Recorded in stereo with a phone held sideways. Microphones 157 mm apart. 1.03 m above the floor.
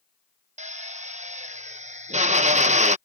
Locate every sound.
0.6 s a drill: 45° right (ahead or behind)